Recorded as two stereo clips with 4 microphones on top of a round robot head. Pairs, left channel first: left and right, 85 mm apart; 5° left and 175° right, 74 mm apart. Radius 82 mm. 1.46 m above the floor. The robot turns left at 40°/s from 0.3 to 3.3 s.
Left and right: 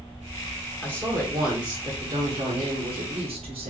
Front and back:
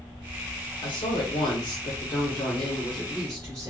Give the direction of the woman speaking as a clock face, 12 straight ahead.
11 o'clock.